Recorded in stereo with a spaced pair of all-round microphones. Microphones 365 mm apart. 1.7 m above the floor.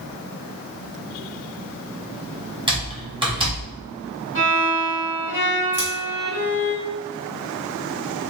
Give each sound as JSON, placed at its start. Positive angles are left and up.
{"t": 2.7, "sound": "typing on a keyboard", "side_deg": -15, "distance_m": 0.9}
{"t": 4.3, "sound": "a violin", "side_deg": 35, "distance_m": 1.7}
{"t": 5.7, "sound": "scissors", "side_deg": 20, "distance_m": 1.9}